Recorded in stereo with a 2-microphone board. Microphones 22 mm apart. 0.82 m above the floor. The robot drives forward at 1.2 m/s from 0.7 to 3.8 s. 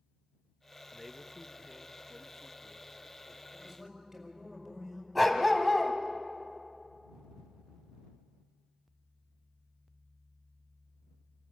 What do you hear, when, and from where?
0.9 s a man speaking: 5° right (ahead or behind), 0.9 m; by 3.4 s centre (ahead or behind), 2.5 m
3.5 s a man speaking: 25° right (ahead or behind), 5.5 m
5.2 s a dog barking: 5° right (ahead or behind), 1.8 m